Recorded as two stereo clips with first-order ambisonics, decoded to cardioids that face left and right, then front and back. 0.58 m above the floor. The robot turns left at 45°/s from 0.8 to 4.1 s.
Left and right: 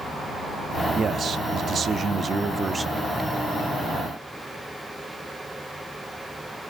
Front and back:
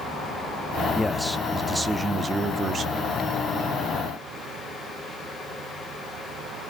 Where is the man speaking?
70° right, 0.8 m; by 3.2 s 170° right, 0.8 m.